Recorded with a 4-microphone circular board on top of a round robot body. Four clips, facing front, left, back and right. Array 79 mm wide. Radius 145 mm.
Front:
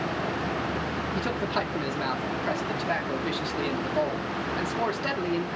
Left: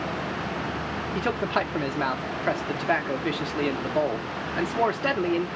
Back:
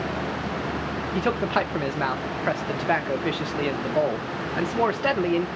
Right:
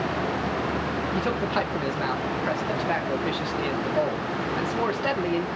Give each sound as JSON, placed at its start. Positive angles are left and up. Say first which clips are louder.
{"t": 1.1, "sound": "a man speaking", "louder": "left 2 dB, back 7 dB", "azimuth_deg": 150, "distance_m": 0.9}